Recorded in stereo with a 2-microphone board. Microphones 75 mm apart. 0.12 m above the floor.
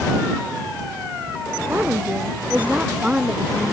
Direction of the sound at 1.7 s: 25° right (ahead or behind).